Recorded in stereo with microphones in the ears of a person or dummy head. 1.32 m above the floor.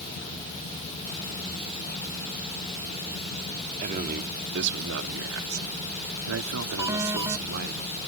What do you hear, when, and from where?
3.8 s a man speaking: 40° right (ahead or behind); by 7.8 s 55° right (ahead or behind)
6.8 s an alarm: 15° right (ahead or behind)